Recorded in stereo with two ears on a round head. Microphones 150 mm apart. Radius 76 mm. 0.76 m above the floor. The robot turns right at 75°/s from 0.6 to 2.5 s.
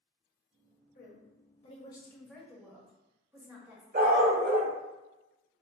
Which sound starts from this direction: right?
A dog barking, at 3.9 s.